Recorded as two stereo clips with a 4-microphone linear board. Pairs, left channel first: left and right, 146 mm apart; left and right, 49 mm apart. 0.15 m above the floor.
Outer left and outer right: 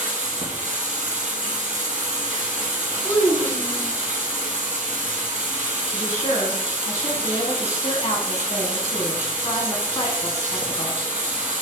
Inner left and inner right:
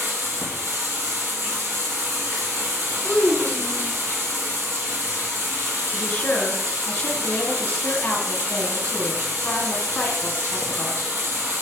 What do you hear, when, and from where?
0.0 s running water: 55° right (ahead or behind), 1.5 m
3.0 s a child speaking: 10° left (ahead or behind), 1.0 m
5.9 s a woman speaking: 25° left (ahead or behind), 1.1 m